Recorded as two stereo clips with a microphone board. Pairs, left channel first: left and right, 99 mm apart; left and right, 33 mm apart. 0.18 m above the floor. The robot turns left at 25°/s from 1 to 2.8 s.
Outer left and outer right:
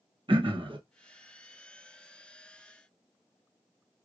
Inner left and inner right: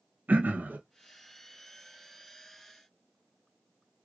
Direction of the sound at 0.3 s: 60° right (ahead or behind).